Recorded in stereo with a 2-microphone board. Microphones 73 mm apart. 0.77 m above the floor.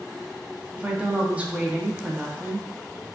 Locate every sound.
0.8 s a woman speaking: 20° right (ahead or behind), 0.6 m